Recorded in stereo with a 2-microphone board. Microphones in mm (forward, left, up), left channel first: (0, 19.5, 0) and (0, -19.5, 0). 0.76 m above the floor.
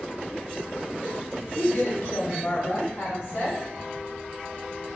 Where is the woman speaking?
40° left (ahead or behind), 0.7 m; by 3.6 s 65° left (ahead or behind), 2.5 m.